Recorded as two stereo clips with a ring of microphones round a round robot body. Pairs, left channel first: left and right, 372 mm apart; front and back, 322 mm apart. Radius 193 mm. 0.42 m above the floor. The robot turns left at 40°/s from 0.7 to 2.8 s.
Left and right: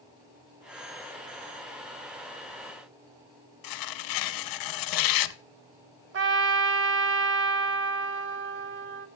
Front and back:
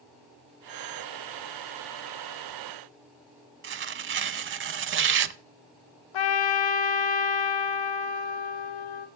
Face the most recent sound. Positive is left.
turn(degrees=-30)